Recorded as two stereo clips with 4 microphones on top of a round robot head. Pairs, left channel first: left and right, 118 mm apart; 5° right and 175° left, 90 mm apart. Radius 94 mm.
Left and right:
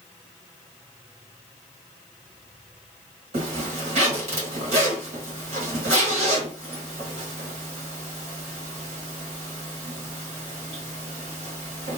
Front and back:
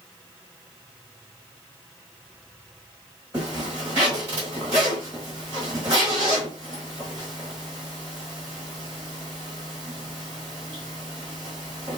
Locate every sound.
3.3 s a zipper: 115° right, 1.4 m